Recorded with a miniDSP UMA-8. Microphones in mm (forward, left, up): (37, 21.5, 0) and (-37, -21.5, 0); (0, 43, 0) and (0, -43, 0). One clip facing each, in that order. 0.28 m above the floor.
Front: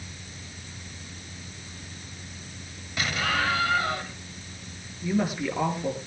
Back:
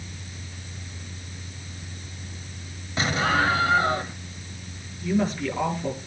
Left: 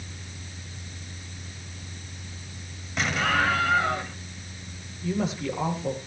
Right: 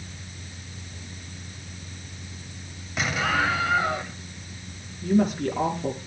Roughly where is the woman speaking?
Ahead right.